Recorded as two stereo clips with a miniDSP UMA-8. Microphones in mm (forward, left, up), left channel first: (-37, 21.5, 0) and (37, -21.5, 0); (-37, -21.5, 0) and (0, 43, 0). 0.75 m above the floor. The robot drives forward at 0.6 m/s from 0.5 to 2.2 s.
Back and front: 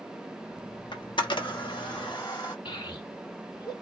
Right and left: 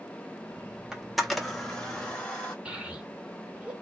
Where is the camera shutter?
140° left, 0.7 m; by 2.5 s 165° left, 1.4 m.